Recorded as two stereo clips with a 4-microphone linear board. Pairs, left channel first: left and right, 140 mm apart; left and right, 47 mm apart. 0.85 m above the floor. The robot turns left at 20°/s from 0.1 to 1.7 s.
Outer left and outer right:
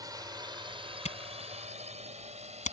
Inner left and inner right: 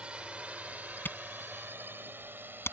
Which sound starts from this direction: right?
A drone, at 0.0 s.